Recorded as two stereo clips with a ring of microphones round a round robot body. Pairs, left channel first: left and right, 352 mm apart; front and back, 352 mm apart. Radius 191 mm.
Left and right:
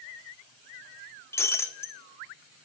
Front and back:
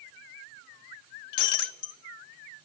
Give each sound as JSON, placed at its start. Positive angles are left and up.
{"t": 1.3, "sound": "breaking glass", "azimuth_deg": 5, "distance_m": 0.6}